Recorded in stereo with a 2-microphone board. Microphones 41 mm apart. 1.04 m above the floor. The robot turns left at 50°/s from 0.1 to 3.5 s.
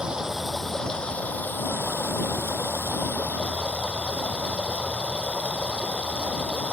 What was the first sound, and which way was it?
Running water, 160° right.